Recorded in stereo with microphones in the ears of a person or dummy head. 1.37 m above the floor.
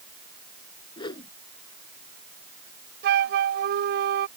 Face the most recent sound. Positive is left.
turn(degrees=-60)  # may be behind; listen again after turning